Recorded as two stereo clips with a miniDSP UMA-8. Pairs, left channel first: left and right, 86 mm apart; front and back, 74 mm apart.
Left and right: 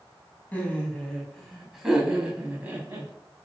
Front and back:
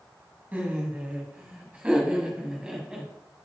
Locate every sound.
0.5 s laughter: 140° left, 1.6 m; by 3.1 s 110° right, 1.6 m